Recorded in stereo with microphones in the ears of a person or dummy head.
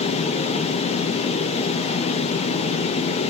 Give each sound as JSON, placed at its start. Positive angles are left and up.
{"t": 0.0, "sound": "a fan", "side_deg": 30, "distance_m": 0.7}